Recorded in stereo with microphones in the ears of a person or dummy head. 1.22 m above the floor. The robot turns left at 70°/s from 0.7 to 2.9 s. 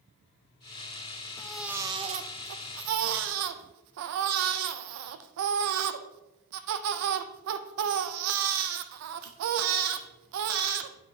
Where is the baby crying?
10° left, 0.6 m; by 11.0 s 95° right, 0.6 m.